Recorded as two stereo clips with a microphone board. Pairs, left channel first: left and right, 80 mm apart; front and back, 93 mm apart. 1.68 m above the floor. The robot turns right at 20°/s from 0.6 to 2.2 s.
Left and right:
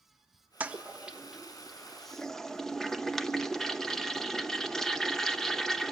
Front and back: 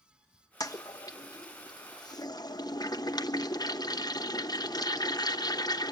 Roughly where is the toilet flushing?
Ahead right.